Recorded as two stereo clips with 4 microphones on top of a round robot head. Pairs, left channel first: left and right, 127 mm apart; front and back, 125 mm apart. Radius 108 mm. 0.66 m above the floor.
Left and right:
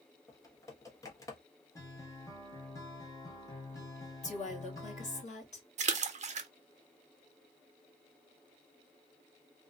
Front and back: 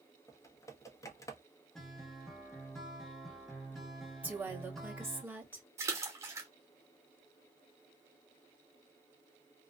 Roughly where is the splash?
Behind right.